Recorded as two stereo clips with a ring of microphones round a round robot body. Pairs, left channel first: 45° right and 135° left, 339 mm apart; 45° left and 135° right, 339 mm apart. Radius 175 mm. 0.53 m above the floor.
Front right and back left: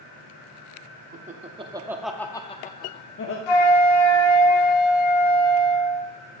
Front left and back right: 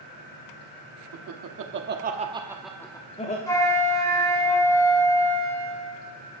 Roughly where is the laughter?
Behind.